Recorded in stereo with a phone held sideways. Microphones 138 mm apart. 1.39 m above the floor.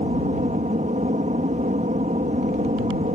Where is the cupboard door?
No cupboard door in this recording.